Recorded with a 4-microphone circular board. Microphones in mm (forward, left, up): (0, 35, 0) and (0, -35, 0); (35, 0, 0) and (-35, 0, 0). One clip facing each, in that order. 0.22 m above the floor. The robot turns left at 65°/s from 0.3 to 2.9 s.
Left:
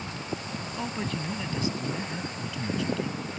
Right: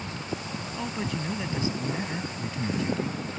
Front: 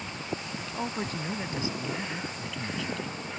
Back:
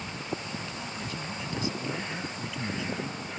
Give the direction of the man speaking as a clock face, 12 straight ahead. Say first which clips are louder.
Right 1 dB, front 4 dB; 12 o'clock.